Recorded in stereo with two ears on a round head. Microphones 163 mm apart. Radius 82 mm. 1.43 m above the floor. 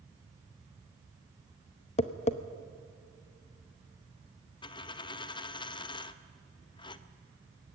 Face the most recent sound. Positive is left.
turn(degrees=25)  # may be behind; listen again after turning